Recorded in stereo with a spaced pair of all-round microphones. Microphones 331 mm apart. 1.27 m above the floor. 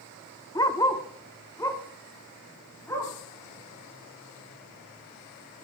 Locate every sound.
0.6 s a dog barking: 10° left (ahead or behind), 0.8 m